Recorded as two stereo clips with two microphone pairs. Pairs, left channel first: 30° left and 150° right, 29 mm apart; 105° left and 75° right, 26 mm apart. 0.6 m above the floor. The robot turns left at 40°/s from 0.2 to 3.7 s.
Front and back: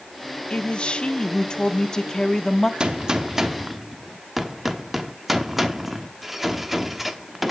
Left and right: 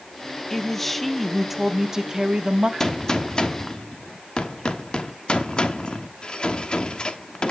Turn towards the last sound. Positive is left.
turn(degrees=130)